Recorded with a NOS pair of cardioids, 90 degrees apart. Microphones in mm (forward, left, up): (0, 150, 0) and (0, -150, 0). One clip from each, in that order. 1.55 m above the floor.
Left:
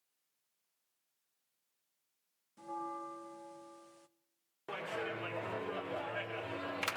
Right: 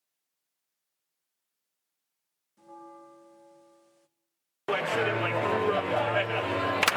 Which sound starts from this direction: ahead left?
A bell, at 2.6 s.